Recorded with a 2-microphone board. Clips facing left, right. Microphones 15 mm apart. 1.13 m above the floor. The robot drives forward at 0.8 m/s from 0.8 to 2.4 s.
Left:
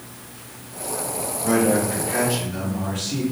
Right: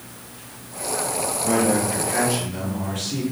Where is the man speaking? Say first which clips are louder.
Left 2 dB; 15° left (ahead or behind), 1.7 m; by 3.2 s 10° left (ahead or behind), 2.5 m.